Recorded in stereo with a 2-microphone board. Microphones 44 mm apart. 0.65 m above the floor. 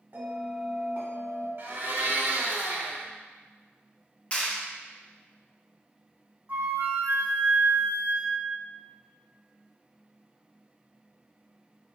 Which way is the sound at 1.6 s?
60° right (ahead or behind).